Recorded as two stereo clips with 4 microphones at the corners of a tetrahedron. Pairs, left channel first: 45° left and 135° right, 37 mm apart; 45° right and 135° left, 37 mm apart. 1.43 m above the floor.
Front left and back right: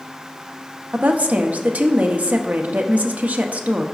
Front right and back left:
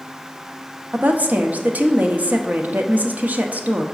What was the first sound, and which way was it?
A woman speaking, straight behind.